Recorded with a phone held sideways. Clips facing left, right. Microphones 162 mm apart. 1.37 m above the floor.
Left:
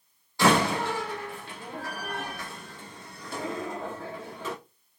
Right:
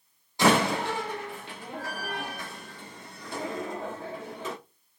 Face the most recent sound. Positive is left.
turn(degrees=-20)  # may be behind; listen again after turning